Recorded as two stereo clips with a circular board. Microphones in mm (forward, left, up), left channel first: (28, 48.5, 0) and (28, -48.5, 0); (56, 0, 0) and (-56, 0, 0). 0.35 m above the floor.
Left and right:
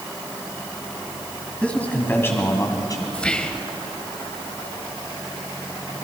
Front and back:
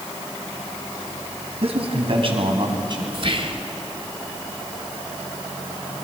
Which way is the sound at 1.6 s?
165° left.